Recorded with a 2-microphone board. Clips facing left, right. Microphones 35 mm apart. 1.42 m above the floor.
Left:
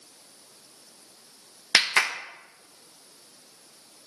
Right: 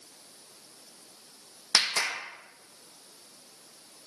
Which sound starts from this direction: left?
A clap, at 1.7 s.